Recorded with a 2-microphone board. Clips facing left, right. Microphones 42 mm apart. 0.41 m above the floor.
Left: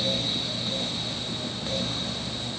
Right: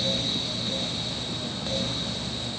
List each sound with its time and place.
Only background noise.